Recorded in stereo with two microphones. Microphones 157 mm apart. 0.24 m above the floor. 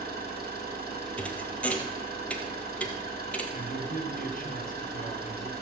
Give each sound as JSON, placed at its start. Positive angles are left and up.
{"t": 0.0, "sound": "an engine running", "side_deg": -85, "distance_m": 3.0}
{"t": 1.2, "sound": "a thud", "side_deg": 10, "distance_m": 1.4}
{"t": 3.5, "sound": "a man speaking", "side_deg": 60, "distance_m": 2.0}